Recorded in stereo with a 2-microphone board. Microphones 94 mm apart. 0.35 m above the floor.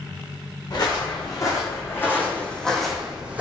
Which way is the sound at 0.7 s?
45° left (ahead or behind).